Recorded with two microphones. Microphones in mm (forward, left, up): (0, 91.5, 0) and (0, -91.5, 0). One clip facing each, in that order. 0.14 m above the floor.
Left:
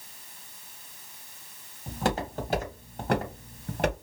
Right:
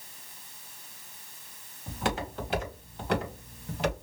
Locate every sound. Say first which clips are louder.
1.9 s footsteps: left 3 dB; 35° left (ahead or behind), 3 m; by 3.9 s 60° left (ahead or behind), 2 m